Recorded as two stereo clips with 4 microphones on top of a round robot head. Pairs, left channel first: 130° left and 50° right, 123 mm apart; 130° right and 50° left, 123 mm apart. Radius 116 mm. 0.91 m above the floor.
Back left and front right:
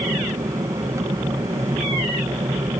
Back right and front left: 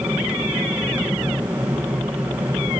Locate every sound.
0.0 s an aircraft: 15° right